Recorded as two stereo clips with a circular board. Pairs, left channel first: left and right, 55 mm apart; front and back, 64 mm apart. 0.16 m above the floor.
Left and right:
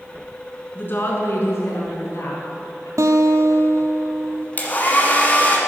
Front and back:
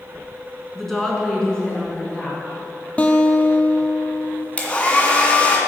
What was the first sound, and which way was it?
A woman speaking, 85° left.